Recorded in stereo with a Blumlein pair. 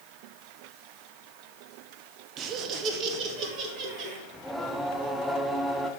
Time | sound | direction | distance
2.4 | laughter | 30° right | 0.8 m
4.3 | singing | straight ahead | 0.6 m